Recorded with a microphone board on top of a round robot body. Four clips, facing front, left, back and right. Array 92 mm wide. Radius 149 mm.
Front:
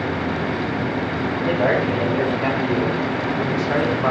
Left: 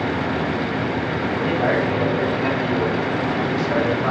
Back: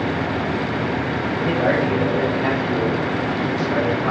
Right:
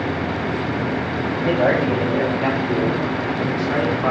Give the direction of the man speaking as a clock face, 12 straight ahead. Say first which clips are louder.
Right 3 dB, even; 3 o'clock.